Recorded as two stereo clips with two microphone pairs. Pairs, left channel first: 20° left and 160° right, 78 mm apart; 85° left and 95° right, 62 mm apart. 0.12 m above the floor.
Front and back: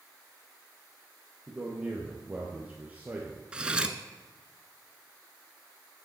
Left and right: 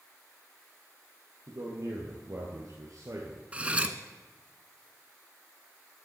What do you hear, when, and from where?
1.5 s a man speaking: 85° right, 3 m; by 3.4 s 95° right, 1.9 m
3.5 s cutlery clinking: 105° right, 0.8 m